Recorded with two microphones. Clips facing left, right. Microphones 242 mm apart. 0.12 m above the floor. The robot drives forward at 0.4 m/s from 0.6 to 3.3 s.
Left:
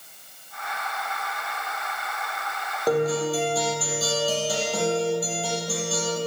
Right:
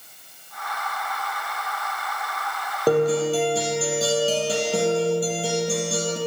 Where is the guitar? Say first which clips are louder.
Right 4 dB; 25° right (ahead or behind), 3 m.